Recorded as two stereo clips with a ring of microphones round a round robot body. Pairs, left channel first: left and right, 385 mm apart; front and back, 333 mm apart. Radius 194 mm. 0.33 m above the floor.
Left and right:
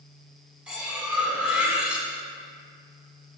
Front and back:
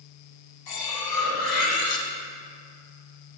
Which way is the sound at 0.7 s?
5° right.